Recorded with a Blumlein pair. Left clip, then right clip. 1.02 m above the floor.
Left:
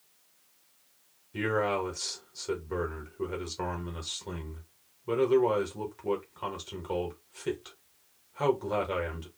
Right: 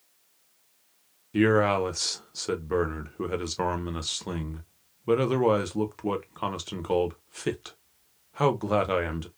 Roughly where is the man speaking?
Ahead right.